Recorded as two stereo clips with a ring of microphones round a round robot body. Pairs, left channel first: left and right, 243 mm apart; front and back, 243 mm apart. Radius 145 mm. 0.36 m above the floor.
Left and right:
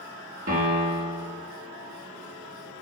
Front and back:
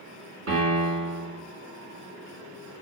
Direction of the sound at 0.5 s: 145° right.